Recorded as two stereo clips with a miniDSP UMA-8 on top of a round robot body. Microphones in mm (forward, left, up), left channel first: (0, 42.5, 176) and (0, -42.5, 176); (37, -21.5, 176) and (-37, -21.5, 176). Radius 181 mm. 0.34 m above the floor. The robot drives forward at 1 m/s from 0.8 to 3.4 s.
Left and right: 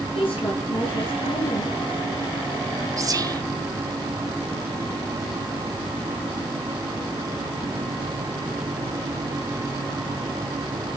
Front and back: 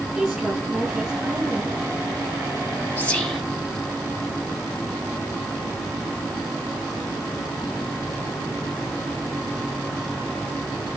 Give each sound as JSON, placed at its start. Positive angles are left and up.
{"t": 0.1, "sound": "a woman speaking", "azimuth_deg": 95, "distance_m": 5.5}
{"t": 3.0, "sound": "whispering", "azimuth_deg": -60, "distance_m": 1.2}